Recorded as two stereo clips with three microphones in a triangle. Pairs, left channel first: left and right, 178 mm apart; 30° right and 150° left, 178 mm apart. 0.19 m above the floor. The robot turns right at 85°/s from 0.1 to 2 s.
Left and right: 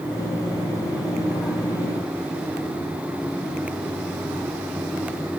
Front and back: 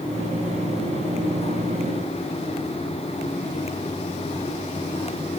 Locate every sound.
Only background noise.